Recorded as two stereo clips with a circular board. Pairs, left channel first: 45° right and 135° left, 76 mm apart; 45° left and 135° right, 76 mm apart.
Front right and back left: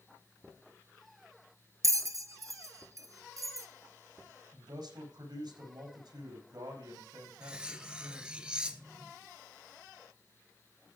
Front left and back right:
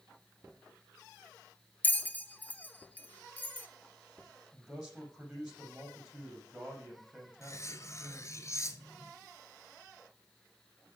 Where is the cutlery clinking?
60° left, 1.0 m.